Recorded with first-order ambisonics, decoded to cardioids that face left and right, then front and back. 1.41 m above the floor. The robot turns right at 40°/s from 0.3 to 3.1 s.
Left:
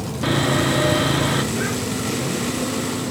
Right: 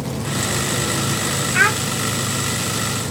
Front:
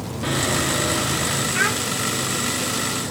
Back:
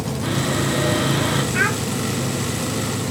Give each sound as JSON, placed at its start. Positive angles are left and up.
{"t": 0.2, "sound": "sawing", "azimuth_deg": 75, "distance_m": 1.4}
{"t": 1.5, "sound": "a child speaking", "azimuth_deg": -95, "distance_m": 1.0}